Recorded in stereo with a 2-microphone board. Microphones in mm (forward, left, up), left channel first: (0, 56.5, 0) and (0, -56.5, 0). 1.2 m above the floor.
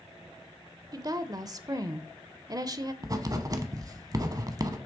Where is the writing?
35° right (ahead or behind), 0.8 m.